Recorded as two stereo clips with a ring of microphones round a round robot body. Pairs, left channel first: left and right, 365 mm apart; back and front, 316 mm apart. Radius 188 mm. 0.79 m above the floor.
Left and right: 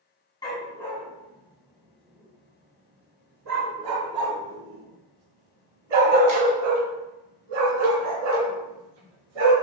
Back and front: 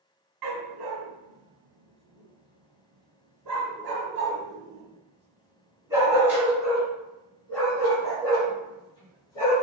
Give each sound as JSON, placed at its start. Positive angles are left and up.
{"t": 0.4, "sound": "a dog barking", "azimuth_deg": 10, "distance_m": 2.0}